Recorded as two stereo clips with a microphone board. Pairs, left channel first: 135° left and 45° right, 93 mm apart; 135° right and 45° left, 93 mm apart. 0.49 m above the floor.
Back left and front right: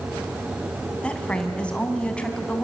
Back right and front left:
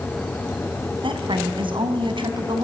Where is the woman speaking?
55° left, 3 m.